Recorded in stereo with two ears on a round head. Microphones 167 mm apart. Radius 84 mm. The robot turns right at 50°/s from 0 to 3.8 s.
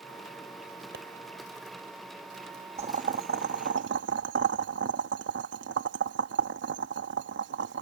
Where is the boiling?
35° right (ahead or behind); by 7.8 s 65° right (ahead or behind).